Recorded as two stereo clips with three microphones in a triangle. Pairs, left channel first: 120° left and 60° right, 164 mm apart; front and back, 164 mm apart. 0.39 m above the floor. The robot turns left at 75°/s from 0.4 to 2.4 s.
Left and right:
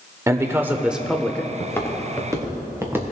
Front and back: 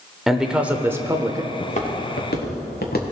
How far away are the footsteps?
About 2.5 m.